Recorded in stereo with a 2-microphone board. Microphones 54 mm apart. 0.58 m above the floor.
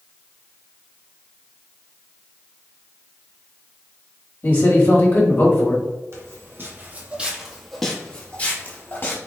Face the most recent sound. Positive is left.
turn(degrees=40)  # may be behind; listen again after turning